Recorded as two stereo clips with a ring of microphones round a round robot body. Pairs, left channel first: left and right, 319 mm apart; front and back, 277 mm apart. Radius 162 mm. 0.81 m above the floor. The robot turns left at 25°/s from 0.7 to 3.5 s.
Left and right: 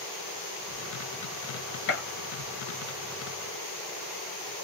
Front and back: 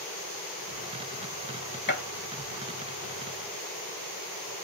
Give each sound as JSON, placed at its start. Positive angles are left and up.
{"t": 1.9, "sound": "a gunshot", "azimuth_deg": 45, "distance_m": 1.4}